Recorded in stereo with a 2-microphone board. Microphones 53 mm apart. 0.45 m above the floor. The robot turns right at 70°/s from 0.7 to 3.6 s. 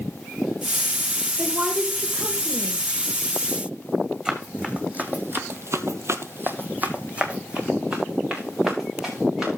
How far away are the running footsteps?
About 2.5 m.